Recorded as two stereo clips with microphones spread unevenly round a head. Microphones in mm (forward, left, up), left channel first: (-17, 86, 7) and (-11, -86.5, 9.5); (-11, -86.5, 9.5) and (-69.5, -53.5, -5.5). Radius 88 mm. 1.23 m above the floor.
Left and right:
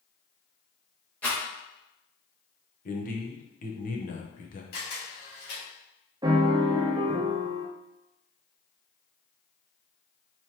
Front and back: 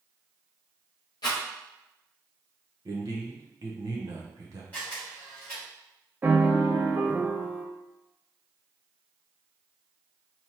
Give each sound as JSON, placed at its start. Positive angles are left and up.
{"t": 1.2, "sound": "a rattle", "azimuth_deg": 10, "distance_m": 1.2}
{"t": 2.9, "sound": "a man speaking", "azimuth_deg": 130, "distance_m": 0.9}
{"t": 4.7, "sound": "a camera shutter", "azimuth_deg": 50, "distance_m": 1.8}
{"t": 6.2, "sound": "a piano", "azimuth_deg": -145, "distance_m": 0.6}